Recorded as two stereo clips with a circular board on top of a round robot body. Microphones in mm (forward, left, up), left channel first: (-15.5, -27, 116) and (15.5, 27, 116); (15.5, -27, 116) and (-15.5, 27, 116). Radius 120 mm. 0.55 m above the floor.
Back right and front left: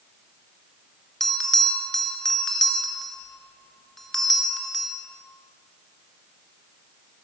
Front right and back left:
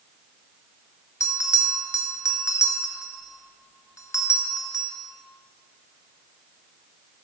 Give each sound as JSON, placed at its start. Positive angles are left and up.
{"t": 1.2, "sound": "a bell", "azimuth_deg": -35, "distance_m": 1.3}